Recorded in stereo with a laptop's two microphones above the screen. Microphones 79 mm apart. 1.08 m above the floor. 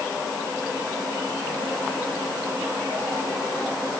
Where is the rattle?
No rattle in this recording.